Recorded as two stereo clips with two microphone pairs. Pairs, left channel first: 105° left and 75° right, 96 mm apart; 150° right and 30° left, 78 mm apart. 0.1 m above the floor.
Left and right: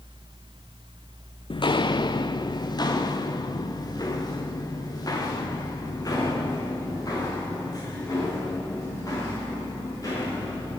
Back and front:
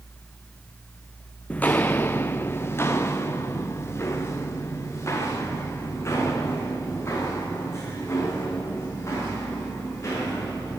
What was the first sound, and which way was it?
Footsteps, 130° left.